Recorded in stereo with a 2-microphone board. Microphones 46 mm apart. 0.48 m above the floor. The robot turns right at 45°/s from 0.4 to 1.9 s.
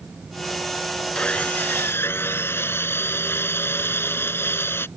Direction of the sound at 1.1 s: 25° left.